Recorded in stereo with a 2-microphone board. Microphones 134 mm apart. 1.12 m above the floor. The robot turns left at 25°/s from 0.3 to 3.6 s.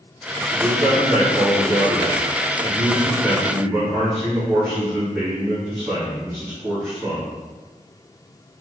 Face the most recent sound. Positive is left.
turn(degrees=-165)